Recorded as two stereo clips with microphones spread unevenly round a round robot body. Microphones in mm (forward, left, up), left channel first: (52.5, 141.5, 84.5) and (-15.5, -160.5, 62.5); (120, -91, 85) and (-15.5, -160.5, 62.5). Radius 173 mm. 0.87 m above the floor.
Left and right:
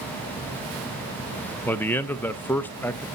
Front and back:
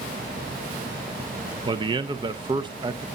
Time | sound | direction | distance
1.6 | a man speaking | 165° left | 0.6 m